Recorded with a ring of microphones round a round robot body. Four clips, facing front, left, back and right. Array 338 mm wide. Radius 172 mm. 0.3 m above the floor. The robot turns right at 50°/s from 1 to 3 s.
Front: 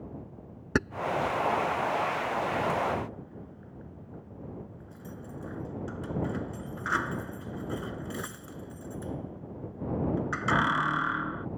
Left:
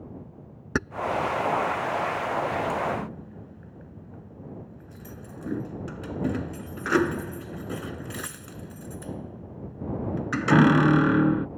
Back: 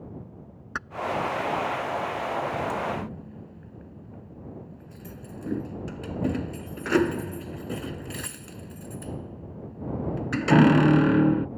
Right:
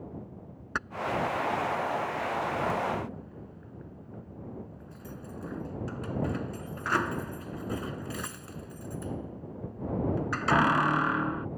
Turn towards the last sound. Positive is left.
turn(degrees=140)